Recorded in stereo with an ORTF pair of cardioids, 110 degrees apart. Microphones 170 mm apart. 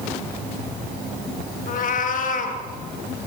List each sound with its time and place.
1.7 s a cat meowing: 55° left, 3.5 m